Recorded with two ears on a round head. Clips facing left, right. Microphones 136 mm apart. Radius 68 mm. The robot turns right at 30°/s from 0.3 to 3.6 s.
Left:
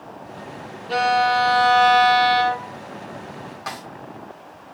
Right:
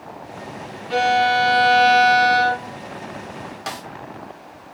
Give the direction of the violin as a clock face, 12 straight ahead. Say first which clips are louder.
Right 1 dB; 8 o'clock.